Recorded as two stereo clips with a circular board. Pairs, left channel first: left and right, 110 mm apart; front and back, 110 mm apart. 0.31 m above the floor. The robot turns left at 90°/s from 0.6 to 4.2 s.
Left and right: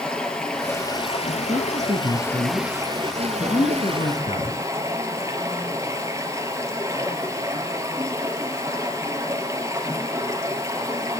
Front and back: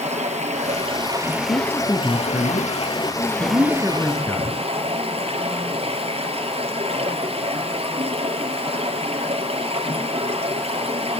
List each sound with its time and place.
0.0 s running water: 170° left, 4.5 m; by 11.2 s 155° right, 4.5 m
1.5 s a man speaking: 45° right, 3 m; by 4.6 s 75° left, 3 m